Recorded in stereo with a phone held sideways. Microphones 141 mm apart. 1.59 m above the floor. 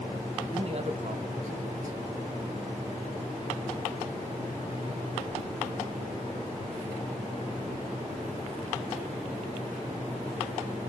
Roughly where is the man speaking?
Right.